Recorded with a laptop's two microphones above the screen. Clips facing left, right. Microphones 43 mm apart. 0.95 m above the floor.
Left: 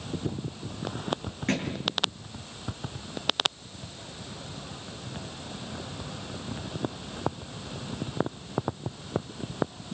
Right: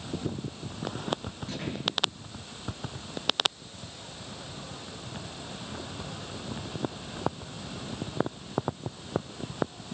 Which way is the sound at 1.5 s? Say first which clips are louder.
Left 7 dB; 70° left (ahead or behind).